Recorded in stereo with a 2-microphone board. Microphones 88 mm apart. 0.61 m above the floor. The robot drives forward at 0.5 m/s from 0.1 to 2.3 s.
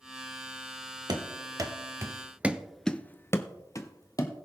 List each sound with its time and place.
1.1 s running footsteps: 50° right (ahead or behind), 1.2 m; by 4.3 s 40° left (ahead or behind), 1.4 m